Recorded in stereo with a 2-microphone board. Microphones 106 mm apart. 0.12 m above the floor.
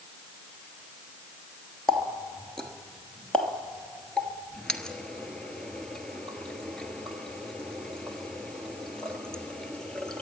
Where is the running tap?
10° left (ahead or behind), 1.3 m.